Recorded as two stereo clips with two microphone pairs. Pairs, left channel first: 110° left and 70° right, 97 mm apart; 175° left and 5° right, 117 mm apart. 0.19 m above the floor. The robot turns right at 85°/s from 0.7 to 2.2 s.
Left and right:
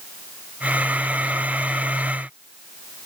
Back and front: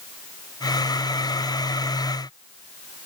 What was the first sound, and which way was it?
Only background noise.